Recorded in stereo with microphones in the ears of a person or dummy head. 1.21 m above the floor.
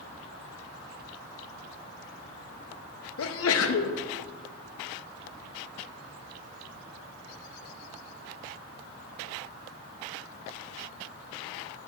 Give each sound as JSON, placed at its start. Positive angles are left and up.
{"t": 3.2, "sound": "a sneeze", "side_deg": 70, "distance_m": 0.5}